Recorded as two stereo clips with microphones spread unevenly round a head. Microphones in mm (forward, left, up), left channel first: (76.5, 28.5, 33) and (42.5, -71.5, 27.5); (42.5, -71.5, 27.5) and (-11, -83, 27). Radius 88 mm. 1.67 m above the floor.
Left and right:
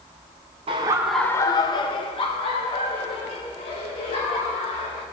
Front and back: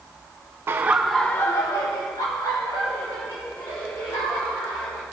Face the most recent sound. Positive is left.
turn(degrees=40)